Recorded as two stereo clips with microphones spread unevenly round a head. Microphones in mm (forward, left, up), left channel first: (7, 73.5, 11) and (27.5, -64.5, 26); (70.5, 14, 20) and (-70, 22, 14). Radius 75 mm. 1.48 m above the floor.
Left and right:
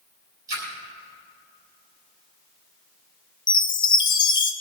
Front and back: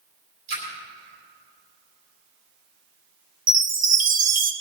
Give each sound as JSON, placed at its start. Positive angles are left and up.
{"t": 0.5, "sound": "a splash", "azimuth_deg": -150, "distance_m": 5.0}
{"t": 3.5, "sound": "a chime", "azimuth_deg": 155, "distance_m": 1.0}